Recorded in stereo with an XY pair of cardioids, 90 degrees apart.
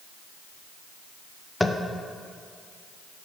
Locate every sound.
1.6 s tapping: 10° left, 0.5 m